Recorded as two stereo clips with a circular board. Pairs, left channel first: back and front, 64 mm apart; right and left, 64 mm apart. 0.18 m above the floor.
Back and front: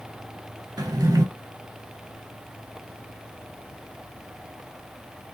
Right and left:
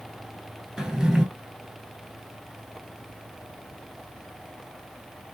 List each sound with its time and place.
0.8 s a drawer: 10° left, 0.6 m